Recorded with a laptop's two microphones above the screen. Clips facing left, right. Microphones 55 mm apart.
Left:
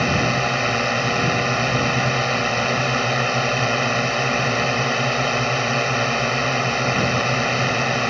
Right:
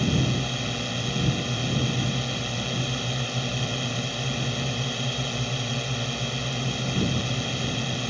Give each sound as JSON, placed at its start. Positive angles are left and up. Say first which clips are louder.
{"t": 0.0, "sound": "a drone", "louder": "left 7 dB", "side_deg": 60}